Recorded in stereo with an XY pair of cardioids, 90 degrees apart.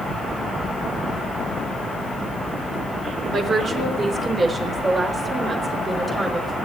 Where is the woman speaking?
60° right, 3 m; by 6.5 s 35° right, 5 m.